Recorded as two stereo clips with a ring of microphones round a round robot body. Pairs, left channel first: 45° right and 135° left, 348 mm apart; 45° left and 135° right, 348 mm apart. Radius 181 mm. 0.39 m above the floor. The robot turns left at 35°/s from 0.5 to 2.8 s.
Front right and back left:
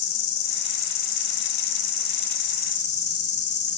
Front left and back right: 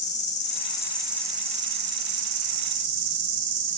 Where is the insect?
25° right, 2.5 m; by 3.8 s 105° right, 2.5 m.